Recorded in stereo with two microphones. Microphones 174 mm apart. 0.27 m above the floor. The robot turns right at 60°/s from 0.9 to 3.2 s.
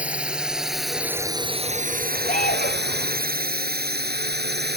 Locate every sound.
0.0 s a drone: 10° right (ahead or behind); by 4.8 s 70° right (ahead or behind)
2.2 s an alarm: 45° left; by 3.0 s 90° left